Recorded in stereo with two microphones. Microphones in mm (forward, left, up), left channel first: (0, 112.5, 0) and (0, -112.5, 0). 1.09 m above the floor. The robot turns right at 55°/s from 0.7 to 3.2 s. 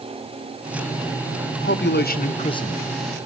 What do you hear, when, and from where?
1.6 s a man speaking: 105° left, 1.3 m; by 2.9 s 175° left, 1.3 m